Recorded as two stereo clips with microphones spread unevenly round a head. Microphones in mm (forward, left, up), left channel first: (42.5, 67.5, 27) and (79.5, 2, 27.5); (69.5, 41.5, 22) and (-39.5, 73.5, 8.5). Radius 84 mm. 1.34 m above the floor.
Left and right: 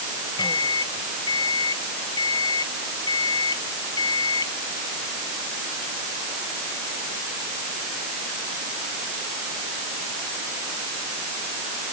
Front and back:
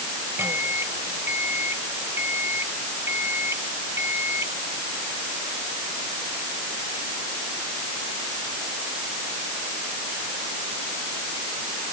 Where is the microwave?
95° left.